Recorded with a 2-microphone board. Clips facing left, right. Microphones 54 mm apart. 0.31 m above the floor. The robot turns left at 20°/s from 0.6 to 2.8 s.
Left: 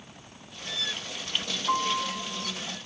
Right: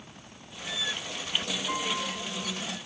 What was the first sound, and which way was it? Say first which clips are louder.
A piano: left 7 dB; 35° left (ahead or behind).